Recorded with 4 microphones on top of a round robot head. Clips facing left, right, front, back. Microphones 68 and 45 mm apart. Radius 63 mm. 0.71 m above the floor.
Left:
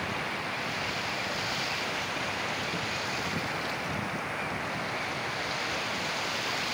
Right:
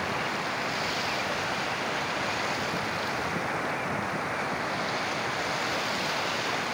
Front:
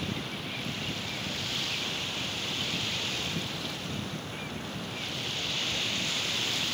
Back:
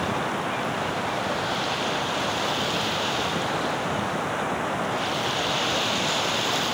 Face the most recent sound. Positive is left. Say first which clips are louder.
# right 3 dB, back 10 dB
turn(degrees=-165)